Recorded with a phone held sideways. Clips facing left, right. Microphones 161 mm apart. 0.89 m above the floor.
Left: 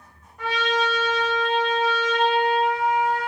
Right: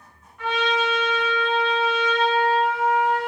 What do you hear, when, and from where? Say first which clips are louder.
0.4 s a trumpet: right 1 dB; 35° left (ahead or behind), 0.8 m